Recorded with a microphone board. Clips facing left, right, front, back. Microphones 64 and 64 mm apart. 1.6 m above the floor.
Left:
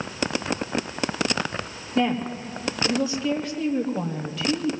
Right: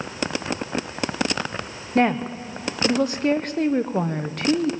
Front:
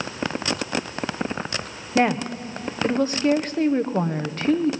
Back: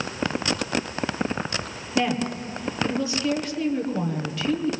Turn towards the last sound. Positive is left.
turn(degrees=-50)